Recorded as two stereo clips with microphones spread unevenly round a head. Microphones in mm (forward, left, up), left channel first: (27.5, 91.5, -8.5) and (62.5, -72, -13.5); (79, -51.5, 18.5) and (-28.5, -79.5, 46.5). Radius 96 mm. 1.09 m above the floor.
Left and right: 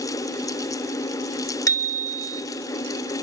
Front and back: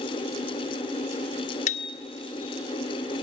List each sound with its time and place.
1.7 s a bicycle bell: 35° left, 2.5 m